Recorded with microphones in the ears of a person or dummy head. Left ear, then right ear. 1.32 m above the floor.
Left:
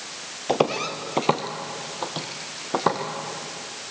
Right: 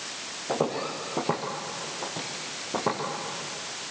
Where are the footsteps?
50° left (ahead or behind), 2.0 m; by 3.0 s 55° left (ahead or behind), 3.5 m.